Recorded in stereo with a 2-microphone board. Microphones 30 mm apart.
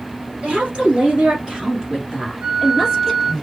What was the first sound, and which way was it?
A woman speaking, 40° right (ahead or behind).